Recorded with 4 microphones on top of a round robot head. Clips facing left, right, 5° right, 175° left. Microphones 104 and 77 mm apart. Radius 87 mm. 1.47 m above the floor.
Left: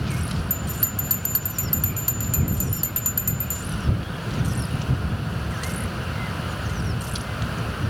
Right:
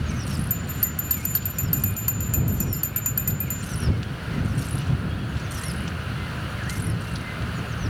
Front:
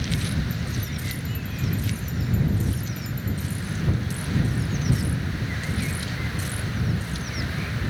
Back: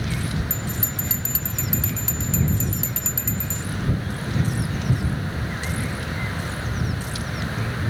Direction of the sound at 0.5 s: 165° left.